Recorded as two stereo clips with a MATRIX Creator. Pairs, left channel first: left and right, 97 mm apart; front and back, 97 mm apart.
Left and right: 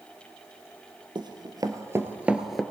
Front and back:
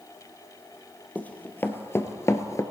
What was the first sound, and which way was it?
Running footsteps, 70° right.